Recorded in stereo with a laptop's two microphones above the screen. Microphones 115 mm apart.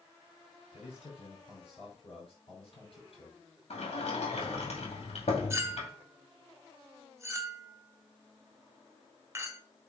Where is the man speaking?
60° left (ahead or behind), 5 m.